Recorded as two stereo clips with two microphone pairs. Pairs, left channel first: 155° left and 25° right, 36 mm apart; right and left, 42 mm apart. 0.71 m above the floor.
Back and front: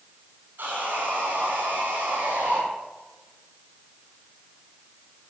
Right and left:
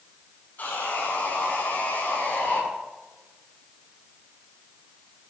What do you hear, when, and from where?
0.6 s sawing: 50° right, 8 m